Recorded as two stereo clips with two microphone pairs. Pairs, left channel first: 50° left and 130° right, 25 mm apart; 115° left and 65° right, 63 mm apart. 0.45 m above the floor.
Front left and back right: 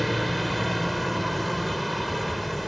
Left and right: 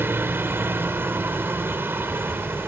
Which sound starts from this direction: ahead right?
A helicopter, at 0.0 s.